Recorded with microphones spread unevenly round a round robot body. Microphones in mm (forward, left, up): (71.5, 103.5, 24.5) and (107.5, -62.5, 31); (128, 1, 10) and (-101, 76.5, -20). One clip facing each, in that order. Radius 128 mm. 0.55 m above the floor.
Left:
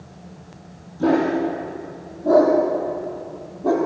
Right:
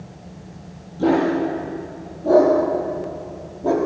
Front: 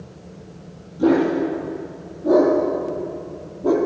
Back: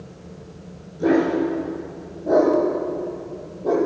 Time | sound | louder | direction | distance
1.0 | a dog barking | right 1 dB, front 1 dB | 20° right | 8.5 m